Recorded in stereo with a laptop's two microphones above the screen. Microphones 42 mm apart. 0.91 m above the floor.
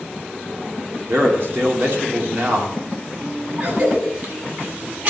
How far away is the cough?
About 7.5 m.